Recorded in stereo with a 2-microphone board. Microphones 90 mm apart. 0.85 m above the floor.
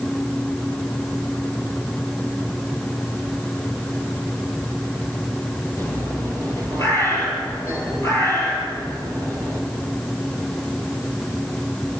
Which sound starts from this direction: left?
A bird, at 5.8 s.